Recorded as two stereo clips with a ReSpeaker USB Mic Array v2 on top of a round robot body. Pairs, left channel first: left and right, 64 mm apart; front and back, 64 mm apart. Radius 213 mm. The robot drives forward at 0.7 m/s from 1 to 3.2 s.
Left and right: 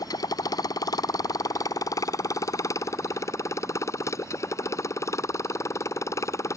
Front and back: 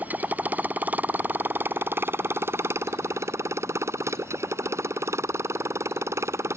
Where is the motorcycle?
115° left; by 6.6 s 130° left.